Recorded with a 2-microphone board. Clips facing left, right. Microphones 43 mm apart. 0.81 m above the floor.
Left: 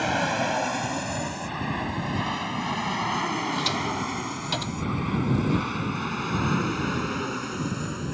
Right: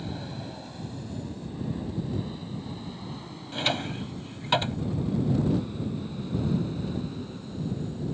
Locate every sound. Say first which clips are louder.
0.0 s an aircraft: left 13 dB; 75° left (ahead or behind)
3.5 s a drawer: left 3 dB; 30° right (ahead or behind)